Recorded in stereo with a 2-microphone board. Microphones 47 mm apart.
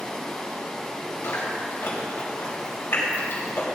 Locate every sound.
0.0 s running water: 15° left (ahead or behind), 1.7 m
1.2 s chewing: 70° left (ahead or behind), 3.5 m